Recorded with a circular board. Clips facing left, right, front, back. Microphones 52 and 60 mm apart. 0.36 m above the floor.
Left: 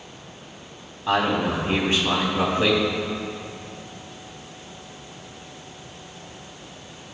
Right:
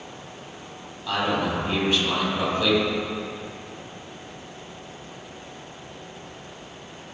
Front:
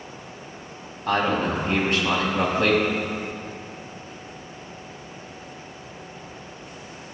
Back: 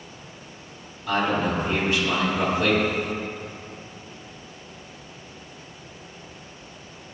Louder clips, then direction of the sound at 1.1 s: Left 3 dB, front 1 dB; 30° left.